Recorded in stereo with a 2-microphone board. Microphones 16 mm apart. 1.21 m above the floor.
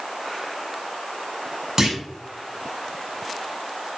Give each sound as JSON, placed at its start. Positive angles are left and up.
{"t": 1.8, "sound": "a clunk", "side_deg": -40, "distance_m": 5.0}